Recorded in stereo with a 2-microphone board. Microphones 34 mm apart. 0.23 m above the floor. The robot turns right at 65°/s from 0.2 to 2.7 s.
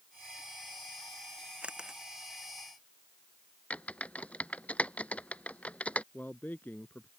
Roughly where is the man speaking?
Left.